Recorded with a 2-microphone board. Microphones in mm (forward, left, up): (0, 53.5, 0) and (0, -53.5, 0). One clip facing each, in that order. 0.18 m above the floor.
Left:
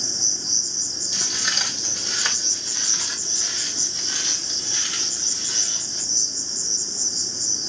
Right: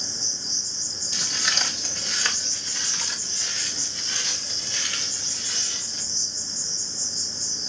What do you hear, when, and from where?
0.0 s an insect: 75° left (ahead or behind), 2 m
1.1 s footsteps: 5° left (ahead or behind), 3 m; by 6.0 s 25° left (ahead or behind), 6 m